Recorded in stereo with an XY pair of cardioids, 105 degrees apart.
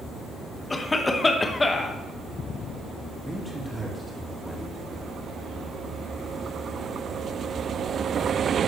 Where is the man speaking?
5° right, 2.5 m.